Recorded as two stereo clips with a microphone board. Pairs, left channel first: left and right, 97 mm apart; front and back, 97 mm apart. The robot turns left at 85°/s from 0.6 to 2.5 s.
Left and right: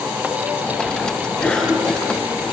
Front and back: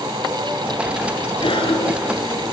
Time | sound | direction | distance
1.4 | a cough | 20° left | 4 m